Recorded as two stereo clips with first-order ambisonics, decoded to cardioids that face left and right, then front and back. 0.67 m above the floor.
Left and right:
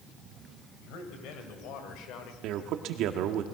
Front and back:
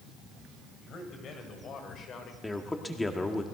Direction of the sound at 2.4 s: 80° right.